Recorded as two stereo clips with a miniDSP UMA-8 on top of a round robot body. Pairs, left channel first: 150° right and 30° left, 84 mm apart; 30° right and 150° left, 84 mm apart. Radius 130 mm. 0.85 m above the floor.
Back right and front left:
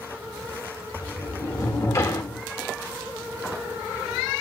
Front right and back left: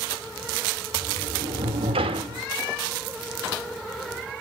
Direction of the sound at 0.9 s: 150° left.